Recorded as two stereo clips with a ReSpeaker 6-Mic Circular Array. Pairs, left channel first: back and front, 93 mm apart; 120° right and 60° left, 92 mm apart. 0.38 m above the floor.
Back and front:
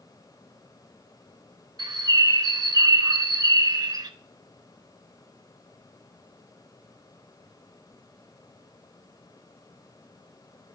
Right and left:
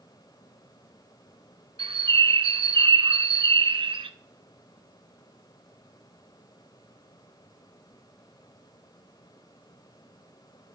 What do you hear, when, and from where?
1.8 s a bird: 45° left, 0.5 m